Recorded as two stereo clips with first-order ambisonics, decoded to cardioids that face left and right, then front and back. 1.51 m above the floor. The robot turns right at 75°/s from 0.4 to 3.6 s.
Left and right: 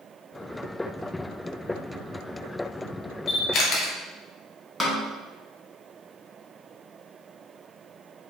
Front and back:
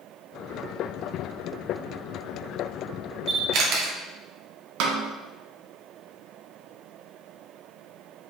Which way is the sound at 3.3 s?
120° left.